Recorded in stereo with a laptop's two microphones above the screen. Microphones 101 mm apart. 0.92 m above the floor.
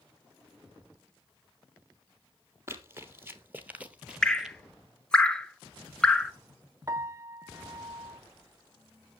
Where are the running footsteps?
25° right (ahead or behind), 1.2 m; by 4.6 s 5° right (ahead or behind), 1.0 m.